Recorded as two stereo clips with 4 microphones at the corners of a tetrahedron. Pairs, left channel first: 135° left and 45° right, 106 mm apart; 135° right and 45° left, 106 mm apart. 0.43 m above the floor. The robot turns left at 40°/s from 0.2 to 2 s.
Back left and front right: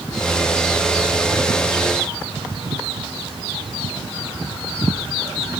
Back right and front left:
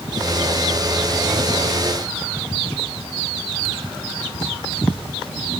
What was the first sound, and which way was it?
Only background noise.